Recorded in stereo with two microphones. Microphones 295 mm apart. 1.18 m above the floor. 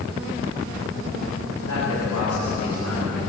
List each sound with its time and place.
1.7 s a man speaking: 65° left (ahead or behind), 6.5 m; by 3.2 s 50° left (ahead or behind), 7 m